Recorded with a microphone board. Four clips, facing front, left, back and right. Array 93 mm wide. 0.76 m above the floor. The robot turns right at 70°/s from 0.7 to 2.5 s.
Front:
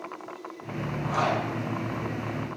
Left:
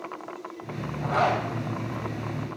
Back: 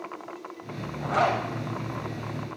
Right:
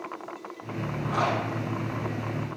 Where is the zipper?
135° left, 4 m; by 1.4 s 160° left, 4 m.